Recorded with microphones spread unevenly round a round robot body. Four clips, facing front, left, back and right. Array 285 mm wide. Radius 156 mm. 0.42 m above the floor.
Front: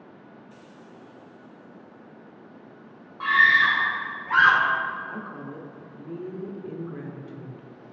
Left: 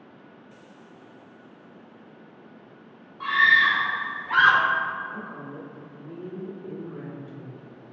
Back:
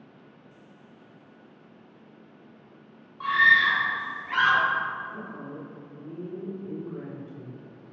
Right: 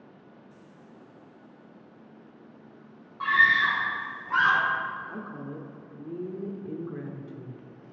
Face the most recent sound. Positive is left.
turn(degrees=-75)